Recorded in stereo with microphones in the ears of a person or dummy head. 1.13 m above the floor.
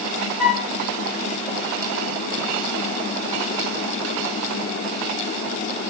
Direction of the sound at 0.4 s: 5° right (ahead or behind).